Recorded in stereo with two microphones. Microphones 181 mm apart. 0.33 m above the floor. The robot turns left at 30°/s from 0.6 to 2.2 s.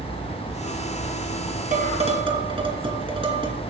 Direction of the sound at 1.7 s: 40° right (ahead or behind).